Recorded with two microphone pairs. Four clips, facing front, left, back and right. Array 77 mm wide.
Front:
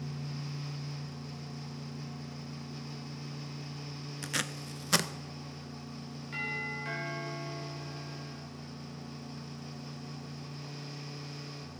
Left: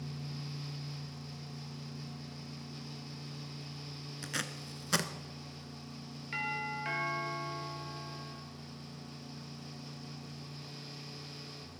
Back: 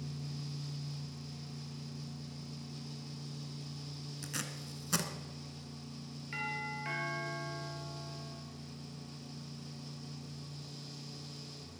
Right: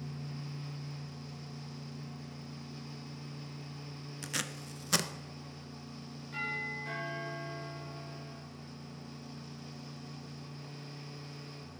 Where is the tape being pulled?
30° left, 0.6 m.